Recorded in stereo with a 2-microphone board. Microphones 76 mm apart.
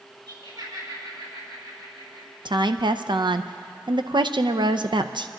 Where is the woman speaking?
75° right (ahead or behind), 0.5 m.